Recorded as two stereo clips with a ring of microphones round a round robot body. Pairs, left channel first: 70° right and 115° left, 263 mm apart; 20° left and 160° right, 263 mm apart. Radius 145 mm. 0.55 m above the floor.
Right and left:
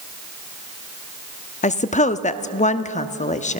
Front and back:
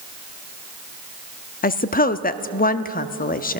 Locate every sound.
1.6 s a woman speaking: 15° right, 0.7 m